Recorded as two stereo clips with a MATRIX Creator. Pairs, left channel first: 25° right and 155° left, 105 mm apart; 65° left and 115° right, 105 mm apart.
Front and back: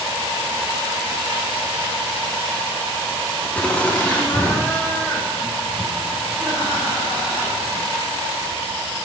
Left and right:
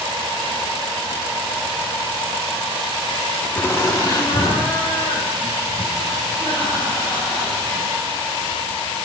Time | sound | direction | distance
3.5 | laughter | 30° left | 1.2 m